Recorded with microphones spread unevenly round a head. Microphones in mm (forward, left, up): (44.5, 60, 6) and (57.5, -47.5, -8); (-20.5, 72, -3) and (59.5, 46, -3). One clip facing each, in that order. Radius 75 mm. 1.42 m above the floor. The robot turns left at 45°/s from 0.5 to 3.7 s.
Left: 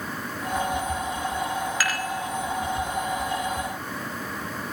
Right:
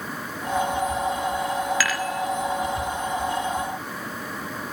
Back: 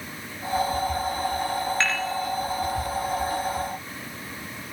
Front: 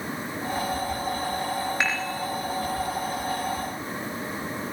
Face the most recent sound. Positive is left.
turn(degrees=175)